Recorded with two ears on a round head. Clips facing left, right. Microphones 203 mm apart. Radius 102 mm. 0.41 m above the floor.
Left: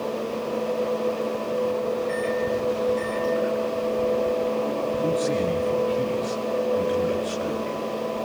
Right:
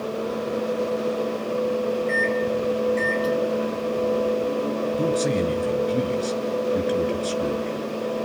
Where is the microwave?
30° right (ahead or behind), 3 m.